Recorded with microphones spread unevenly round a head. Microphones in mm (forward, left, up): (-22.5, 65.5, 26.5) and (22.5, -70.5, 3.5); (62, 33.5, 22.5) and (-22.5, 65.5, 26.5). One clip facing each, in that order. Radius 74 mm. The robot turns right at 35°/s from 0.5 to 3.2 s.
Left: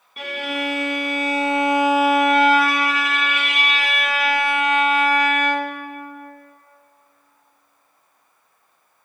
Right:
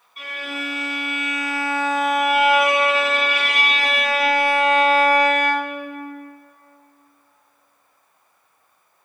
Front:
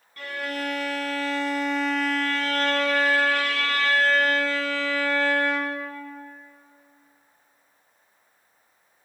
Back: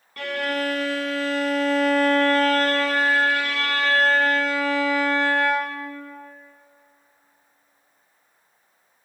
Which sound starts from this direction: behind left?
A violin, at 0.2 s.